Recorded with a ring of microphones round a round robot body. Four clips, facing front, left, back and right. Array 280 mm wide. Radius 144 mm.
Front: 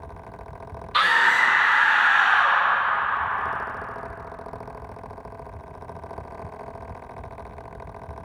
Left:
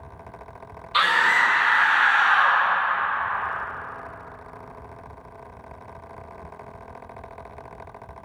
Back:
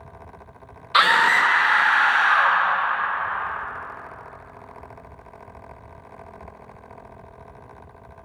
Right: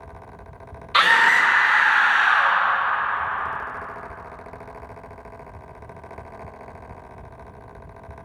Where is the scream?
140° right, 0.5 m; by 2.6 s 160° right, 1.2 m.